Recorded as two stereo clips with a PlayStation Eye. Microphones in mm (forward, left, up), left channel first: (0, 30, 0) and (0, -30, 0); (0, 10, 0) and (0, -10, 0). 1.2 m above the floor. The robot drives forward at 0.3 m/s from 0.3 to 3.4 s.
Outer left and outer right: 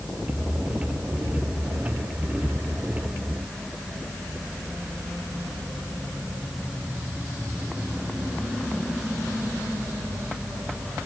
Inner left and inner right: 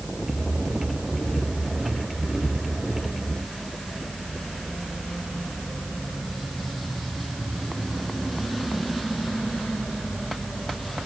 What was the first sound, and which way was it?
Only background noise.